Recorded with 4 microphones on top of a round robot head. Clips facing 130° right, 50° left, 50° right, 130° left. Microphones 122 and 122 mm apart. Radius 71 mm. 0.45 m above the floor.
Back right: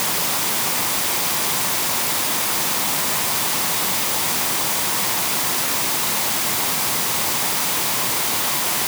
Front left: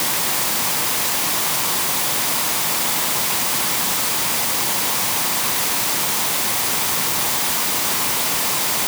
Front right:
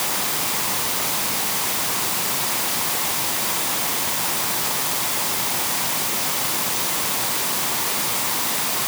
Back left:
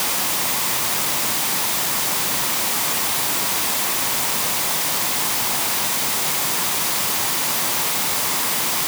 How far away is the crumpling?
I don't hear crumpling.